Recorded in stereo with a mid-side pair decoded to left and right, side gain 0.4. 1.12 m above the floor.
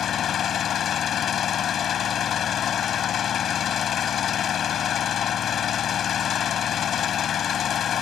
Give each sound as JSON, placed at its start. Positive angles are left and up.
{"t": 0.0, "sound": "an engine running", "azimuth_deg": 65}